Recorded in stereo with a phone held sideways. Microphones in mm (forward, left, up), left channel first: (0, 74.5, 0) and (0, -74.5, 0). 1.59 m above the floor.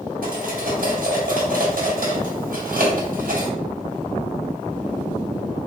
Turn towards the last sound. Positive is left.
turn(degrees=-75)  # may be behind; listen again after turning